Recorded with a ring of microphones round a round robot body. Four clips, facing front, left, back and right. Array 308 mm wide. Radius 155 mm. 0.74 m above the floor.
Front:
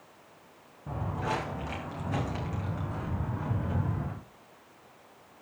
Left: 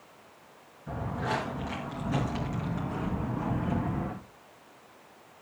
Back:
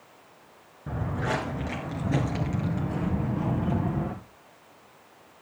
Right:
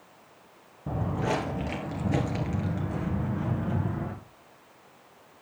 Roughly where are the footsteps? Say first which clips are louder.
Right 3 dB, back 3 dB; behind right.